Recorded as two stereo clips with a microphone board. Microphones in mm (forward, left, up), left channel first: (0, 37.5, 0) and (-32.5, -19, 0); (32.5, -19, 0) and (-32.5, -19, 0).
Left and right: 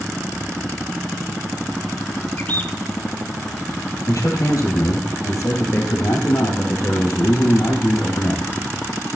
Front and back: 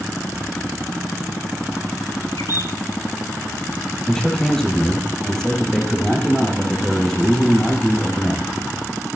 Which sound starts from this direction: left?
A man speaking, at 4.1 s.